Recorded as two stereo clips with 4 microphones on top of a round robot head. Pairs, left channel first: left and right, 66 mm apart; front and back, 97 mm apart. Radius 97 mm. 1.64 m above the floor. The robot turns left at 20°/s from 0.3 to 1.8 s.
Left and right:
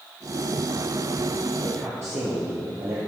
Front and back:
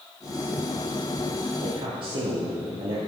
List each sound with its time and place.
1.6 s a man speaking: 140° right, 1.2 m